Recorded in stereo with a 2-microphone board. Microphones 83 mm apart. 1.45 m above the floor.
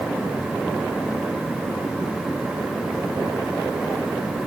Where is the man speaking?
No man speaking in this recording.